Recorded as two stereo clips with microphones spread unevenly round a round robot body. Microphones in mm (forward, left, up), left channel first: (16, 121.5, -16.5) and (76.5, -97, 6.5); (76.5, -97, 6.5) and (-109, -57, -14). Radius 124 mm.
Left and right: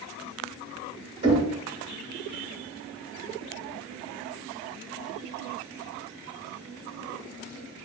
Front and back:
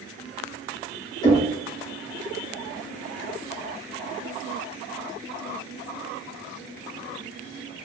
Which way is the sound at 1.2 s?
55° right.